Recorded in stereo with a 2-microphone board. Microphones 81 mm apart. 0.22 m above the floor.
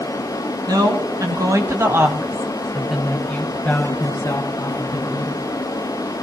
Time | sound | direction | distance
0.7 | a woman speaking | 55° right (ahead or behind) | 1.9 m